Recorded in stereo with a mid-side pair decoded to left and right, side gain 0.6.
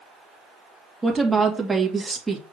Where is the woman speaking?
10° right, 2.0 m.